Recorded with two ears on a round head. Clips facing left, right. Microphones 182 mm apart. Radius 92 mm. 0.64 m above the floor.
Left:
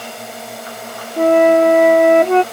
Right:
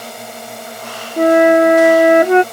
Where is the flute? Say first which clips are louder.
Right 1 dB; 10° right (ahead or behind).